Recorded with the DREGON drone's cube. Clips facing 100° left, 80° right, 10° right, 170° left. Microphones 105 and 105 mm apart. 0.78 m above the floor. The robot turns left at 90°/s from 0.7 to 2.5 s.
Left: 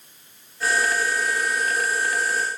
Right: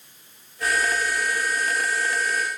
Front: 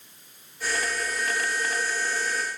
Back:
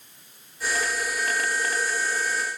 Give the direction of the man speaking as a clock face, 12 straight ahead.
I don't hear a man speaking.